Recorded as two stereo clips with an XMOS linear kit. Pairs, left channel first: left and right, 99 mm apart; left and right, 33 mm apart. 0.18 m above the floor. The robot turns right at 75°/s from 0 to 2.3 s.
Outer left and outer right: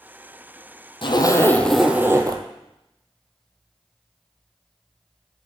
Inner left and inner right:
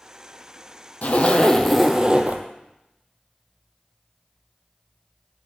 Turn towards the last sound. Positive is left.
turn(degrees=-140)